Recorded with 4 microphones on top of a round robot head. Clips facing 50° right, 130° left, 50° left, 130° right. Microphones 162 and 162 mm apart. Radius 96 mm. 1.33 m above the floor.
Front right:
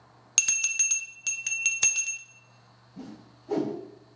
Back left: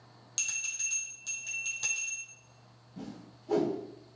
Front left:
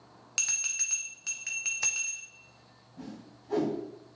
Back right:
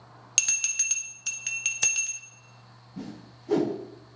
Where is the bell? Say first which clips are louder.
Front right 7 dB, back right 3 dB; 70° right, 0.5 m.